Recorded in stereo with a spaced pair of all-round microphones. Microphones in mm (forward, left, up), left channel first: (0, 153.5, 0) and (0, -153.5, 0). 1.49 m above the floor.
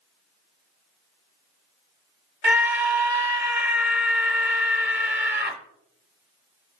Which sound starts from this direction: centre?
A scream, at 2.4 s.